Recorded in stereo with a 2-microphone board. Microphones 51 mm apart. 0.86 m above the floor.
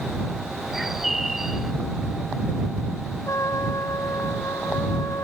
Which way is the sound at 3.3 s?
75° left (ahead or behind).